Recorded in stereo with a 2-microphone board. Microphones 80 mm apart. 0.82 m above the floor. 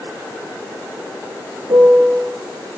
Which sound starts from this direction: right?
A piano, at 1.7 s.